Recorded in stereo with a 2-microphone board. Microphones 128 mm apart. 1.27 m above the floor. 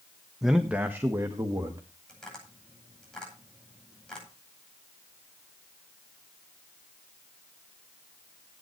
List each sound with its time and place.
0.4 s a man speaking: centre (ahead or behind), 1.2 m; by 1.8 s 30° right (ahead or behind), 2 m
2.1 s tapping: 5° left (ahead or behind), 9.5 m